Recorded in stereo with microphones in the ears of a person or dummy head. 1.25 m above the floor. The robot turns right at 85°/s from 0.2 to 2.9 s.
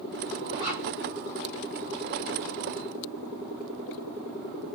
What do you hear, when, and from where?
0.5 s a zipper: 25° right (ahead or behind), 2 m; by 0.8 s 50° right (ahead or behind), 2 m